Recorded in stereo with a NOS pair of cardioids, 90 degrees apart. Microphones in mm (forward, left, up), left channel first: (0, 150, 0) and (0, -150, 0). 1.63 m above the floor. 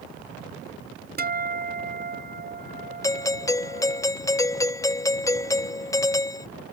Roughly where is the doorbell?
Ahead.